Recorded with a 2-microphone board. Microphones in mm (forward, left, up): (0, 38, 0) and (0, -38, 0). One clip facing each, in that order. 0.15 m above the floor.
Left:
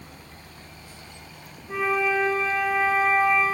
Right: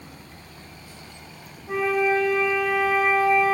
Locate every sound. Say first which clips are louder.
1.7 s a flute: right 2 dB; 65° right (ahead or behind), 2 m